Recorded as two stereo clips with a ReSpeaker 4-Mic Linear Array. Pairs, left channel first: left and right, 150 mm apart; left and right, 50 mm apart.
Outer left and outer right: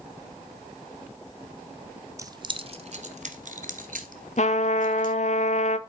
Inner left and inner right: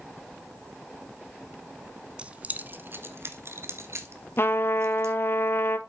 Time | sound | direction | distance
2.2 | keys jangling | 20° right (ahead or behind) | 0.8 m
4.4 | a trumpet | 50° left (ahead or behind) | 0.6 m